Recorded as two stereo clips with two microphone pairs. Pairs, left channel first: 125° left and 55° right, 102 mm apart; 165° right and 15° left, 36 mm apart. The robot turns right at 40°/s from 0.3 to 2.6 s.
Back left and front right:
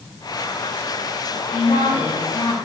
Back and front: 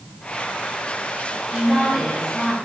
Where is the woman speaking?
85° left, 4 m; by 2.5 s 125° left, 4 m.